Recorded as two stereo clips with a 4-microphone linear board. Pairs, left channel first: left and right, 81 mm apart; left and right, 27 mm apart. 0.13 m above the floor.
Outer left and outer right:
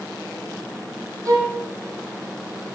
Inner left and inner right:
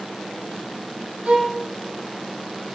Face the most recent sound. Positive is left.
turn(degrees=-45)  # may be behind; listen again after turning